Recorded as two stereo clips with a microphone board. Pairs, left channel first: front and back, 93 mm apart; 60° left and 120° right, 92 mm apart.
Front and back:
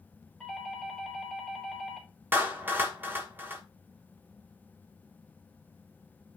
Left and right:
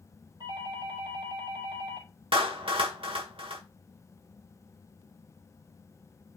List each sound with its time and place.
0.4 s a doorbell: 90° right, 3.5 m
2.3 s a clap: 110° right, 1.4 m